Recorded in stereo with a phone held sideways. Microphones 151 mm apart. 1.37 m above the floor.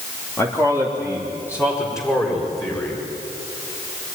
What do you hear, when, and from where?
0.4 s a man speaking: 15° left (ahead or behind), 3 m; by 3.0 s 20° left (ahead or behind), 6.5 m